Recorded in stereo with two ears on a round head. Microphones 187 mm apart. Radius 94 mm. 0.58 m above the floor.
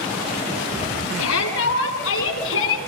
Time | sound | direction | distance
1.2 | a shout | 80° left | 8 m